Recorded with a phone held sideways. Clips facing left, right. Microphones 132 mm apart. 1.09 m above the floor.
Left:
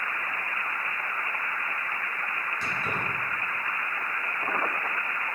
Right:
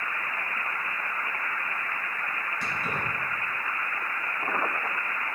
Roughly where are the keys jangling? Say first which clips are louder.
Even; centre.